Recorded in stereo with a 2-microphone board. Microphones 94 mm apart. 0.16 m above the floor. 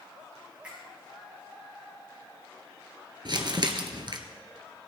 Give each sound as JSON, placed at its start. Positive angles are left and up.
{"t": 0.6, "sound": "a finger snap", "side_deg": -10, "distance_m": 6.5}
{"t": 3.2, "sound": "crumpling", "side_deg": -55, "distance_m": 1.5}